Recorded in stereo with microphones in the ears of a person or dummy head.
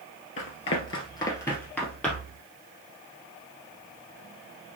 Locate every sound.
0.4 s running footsteps: 45° left (ahead or behind), 1.9 m; by 2.4 s centre (ahead or behind), 2.5 m